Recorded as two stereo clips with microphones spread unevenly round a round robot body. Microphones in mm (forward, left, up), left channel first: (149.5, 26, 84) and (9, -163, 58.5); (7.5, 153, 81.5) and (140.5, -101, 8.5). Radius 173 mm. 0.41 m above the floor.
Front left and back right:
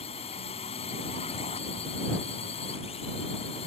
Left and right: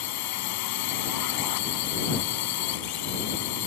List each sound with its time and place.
0.0 s a drone: 125° left